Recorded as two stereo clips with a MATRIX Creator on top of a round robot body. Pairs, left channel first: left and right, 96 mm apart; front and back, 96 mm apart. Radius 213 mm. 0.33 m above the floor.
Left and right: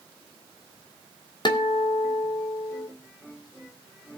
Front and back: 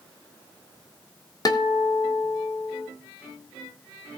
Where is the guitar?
50° left, 1.2 m.